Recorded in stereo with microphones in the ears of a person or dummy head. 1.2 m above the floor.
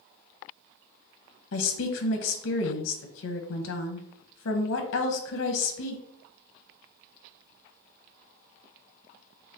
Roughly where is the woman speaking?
Left.